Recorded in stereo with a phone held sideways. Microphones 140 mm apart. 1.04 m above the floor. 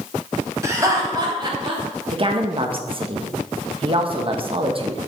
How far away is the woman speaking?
About 1.1 m.